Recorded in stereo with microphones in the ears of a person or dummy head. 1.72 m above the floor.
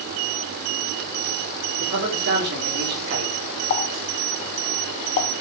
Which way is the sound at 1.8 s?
50° right (ahead or behind).